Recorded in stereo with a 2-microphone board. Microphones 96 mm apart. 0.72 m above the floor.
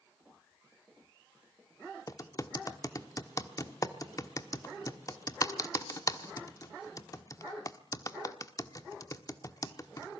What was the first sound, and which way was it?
Typing on a keyboard, 40° left (ahead or behind).